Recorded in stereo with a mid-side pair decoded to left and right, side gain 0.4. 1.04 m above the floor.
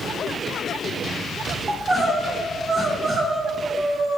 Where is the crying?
35° right, 0.7 m.